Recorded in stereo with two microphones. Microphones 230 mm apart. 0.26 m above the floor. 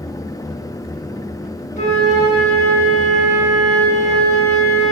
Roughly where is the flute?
Left.